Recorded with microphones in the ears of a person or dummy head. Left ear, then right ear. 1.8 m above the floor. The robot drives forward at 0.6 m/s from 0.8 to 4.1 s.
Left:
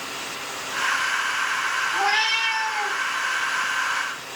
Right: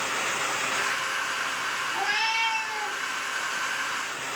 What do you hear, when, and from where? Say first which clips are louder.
1.9 s a cat meowing: left 4 dB; 15° left (ahead or behind), 4 m; by 3.0 s 20° left (ahead or behind), 3.5 m